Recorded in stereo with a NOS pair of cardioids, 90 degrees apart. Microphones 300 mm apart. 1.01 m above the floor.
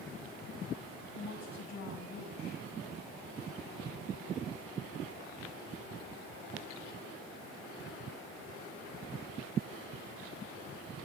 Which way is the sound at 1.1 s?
65° left.